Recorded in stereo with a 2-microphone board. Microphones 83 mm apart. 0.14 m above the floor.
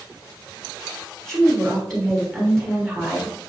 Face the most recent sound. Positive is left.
turn(degrees=5)  # may be behind; listen again after turning